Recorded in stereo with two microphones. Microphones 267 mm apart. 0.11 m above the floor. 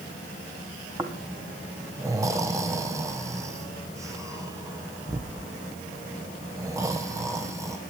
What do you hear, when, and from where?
1.0 s snoring: 10° right (ahead or behind), 2.5 m